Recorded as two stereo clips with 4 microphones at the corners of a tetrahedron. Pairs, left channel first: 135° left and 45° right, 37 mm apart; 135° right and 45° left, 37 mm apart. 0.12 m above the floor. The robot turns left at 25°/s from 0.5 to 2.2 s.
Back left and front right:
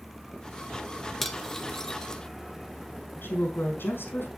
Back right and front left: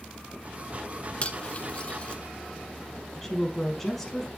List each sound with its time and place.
1.2 s cutlery clinking: 145° right, 0.9 m; by 2.2 s 170° right, 0.9 m
3.2 s a woman speaking: 140° left, 4 m